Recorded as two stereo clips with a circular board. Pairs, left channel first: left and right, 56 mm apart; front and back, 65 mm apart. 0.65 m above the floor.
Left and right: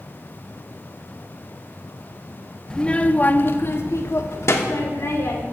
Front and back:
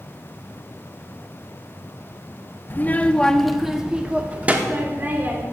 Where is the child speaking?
20° left, 0.6 m; by 5.4 s 125° left, 1.6 m.